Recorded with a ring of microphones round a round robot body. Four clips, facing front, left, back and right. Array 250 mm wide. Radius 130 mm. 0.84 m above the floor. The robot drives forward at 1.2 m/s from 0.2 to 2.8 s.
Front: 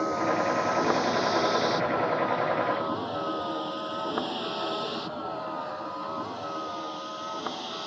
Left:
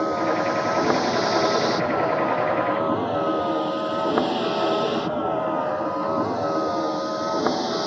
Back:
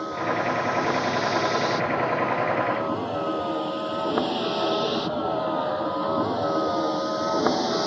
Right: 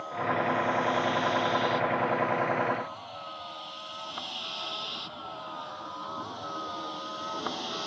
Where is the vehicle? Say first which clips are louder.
Left 8 dB, even; 80° left; by 7.9 s 135° left.